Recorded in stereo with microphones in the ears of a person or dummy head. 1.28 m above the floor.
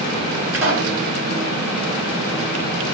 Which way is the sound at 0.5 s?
85° right.